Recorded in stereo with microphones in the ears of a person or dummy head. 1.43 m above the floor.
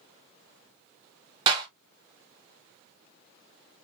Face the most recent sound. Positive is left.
turn(degrees=-25)  # may be behind; listen again after turning